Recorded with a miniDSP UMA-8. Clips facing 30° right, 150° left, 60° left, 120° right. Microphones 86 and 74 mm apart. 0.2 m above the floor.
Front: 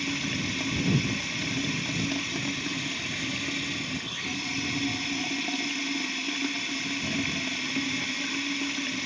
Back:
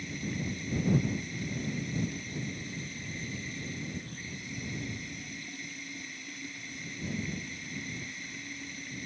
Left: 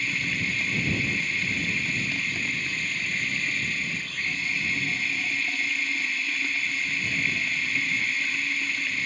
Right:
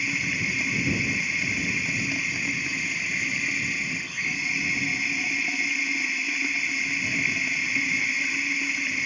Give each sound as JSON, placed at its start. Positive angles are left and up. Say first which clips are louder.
{"t": 0.0, "sound": "running water", "louder": "front 5 dB, right 1 dB", "azimuth_deg": -40}